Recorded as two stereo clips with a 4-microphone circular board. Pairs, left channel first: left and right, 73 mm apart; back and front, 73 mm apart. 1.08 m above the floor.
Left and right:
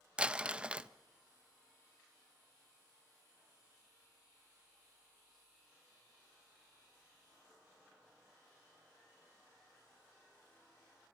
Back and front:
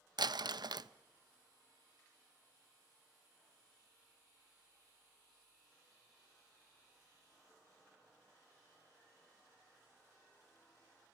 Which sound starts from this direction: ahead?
Crumpling, at 0.2 s.